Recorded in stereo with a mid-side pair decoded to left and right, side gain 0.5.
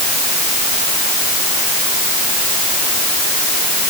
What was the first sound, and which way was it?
Only background noise.